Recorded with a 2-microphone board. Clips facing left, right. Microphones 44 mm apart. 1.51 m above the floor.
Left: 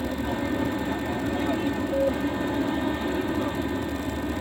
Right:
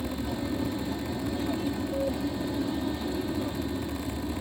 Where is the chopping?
I don't hear chopping.